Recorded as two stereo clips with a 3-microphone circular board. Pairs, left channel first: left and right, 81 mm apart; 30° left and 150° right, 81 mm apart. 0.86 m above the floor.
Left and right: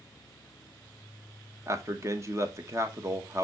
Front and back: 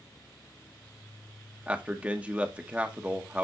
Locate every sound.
1.7 s a man speaking: 90° right, 0.9 m